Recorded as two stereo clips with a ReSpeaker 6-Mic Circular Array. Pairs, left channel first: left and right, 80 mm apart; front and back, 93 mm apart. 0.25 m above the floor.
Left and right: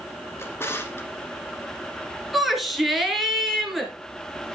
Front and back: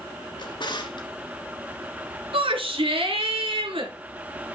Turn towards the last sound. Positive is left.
turn(degrees=180)